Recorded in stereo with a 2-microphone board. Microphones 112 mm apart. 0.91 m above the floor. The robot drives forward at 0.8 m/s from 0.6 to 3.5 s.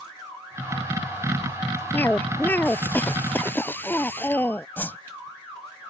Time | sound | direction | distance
1.9 | a cough | 15° left (ahead or behind) | ?
4.8 | a whoosh | 15° left (ahead or behind) | ?